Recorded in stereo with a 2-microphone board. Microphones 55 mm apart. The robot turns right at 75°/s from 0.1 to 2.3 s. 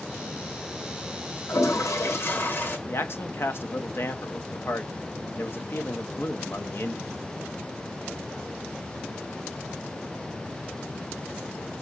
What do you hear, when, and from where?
1.5 s a toilet flushing: 75° left, 1.8 m; by 2.8 s 135° left, 1.8 m
2.9 s a man speaking: 50° left (ahead or behind), 1.2 m